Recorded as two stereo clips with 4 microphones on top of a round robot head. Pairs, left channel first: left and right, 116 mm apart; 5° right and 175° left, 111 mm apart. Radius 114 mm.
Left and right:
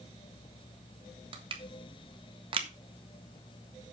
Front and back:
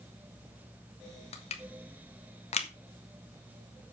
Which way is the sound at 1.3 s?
40° right.